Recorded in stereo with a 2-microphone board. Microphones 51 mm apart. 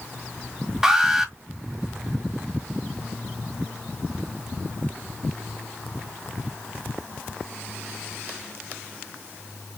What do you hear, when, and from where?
0.8 s an alarm: 10° right (ahead or behind), 1.4 m